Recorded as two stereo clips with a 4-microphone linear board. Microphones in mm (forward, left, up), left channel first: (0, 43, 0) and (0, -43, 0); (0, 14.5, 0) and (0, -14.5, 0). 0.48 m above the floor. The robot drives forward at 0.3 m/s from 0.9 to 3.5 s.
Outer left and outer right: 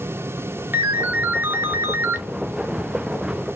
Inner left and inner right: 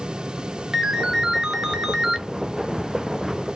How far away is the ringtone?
About 0.5 m.